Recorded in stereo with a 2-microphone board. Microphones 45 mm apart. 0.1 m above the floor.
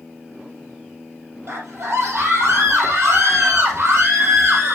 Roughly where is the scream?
Right.